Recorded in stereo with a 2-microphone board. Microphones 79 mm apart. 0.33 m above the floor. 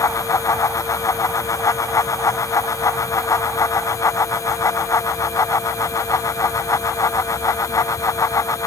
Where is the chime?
No chime in this recording.